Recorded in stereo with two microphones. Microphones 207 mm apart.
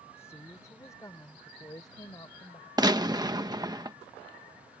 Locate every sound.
0.2 s a woman speaking: 10° left (ahead or behind); by 2.7 s 20° left (ahead or behind)
2.8 s a gunshot: 20° right (ahead or behind)